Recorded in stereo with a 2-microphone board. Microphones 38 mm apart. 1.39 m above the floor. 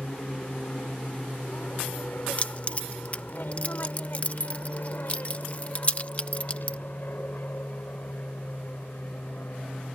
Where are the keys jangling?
40° left (ahead or behind).